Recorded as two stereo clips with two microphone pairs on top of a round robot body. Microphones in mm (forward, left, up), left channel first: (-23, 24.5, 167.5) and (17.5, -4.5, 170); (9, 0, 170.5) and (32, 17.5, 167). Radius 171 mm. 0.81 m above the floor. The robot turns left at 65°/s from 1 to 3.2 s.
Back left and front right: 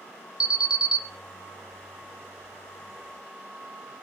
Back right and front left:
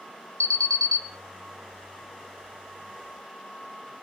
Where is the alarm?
110° right, 0.9 m.